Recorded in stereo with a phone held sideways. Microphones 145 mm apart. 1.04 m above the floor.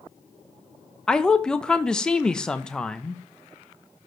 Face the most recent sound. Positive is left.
turn(degrees=5)  # may be behind; listen again after turning